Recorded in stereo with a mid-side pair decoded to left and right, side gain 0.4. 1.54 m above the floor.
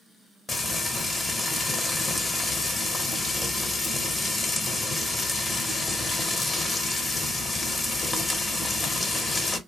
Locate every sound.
0.5 s frying: 30° left, 0.9 m